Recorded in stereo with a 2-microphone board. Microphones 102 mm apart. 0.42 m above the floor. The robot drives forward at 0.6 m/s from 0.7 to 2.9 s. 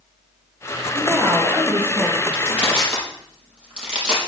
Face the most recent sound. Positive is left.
turn(degrees=-10)  # may be behind; listen again after turning